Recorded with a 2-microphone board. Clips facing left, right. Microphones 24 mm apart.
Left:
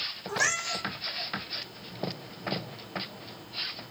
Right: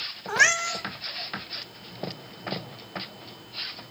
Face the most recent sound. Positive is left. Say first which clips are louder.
# right 8 dB
turn(degrees=-55)  # may be behind; listen again after turning